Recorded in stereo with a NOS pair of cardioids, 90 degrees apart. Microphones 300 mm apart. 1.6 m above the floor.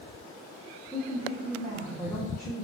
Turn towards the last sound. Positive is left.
turn(degrees=15)